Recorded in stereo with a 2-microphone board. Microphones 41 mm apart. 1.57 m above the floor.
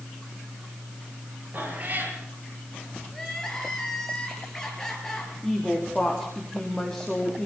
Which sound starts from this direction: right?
A cat meowing, at 1.5 s.